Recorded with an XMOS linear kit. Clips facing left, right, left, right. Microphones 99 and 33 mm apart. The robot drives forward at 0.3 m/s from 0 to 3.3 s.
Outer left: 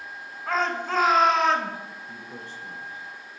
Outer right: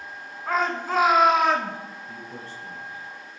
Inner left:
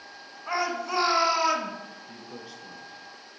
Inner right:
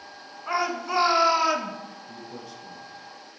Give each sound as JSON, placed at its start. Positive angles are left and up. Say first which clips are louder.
{"t": 0.5, "sound": "a shout", "louder": "outer right 1 dB, inner right 2 dB", "side_deg": -10, "distance_m": 1.8}
{"t": 2.1, "sound": "a man speaking", "louder": "outer right 1 dB, inner right 2 dB", "side_deg": 20, "distance_m": 3.5}